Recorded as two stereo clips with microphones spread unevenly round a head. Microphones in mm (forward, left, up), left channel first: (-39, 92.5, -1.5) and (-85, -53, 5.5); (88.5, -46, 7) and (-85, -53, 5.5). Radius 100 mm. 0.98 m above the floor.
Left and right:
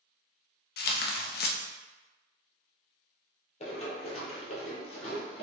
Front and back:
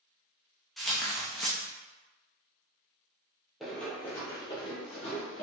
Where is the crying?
I don't hear crying.